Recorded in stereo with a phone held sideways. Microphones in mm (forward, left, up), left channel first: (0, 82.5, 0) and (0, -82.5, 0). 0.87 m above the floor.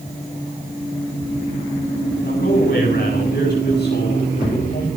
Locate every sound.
2.2 s a man speaking: 80° left, 8 m; by 4.9 s 75° left (ahead or behind), 5 m